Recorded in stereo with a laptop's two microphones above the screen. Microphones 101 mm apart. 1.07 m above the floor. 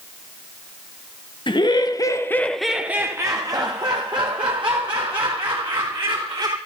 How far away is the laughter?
About 0.8 m.